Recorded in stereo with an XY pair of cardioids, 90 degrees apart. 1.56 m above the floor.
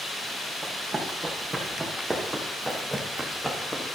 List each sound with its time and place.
0.6 s running footsteps: 30° right, 5.5 m; by 4.0 s 5° left, 4 m